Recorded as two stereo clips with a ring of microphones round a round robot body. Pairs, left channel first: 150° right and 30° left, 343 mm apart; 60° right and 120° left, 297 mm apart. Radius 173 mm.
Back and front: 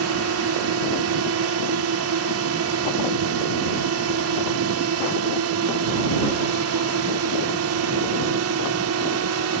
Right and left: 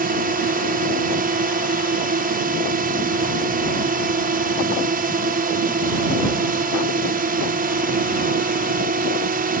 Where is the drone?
65° left.